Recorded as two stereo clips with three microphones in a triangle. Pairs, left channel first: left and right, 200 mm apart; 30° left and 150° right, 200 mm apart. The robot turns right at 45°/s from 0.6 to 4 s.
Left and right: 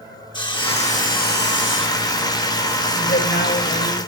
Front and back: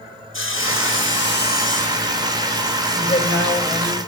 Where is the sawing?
25° left, 0.8 m; by 2.1 s 95° left, 0.8 m.